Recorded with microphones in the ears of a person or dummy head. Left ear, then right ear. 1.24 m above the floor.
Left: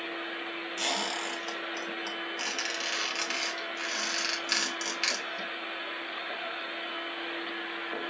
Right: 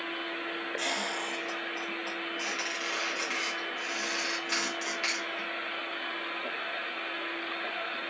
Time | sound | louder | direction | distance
0.8 | a squeak | left 2 dB | 60° left (ahead or behind) | 2 m